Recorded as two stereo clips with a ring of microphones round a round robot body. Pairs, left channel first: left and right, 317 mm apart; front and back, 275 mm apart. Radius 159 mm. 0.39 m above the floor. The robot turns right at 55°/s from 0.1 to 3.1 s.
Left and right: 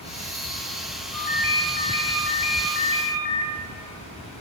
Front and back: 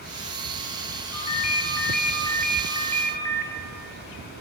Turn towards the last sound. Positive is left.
turn(degrees=120)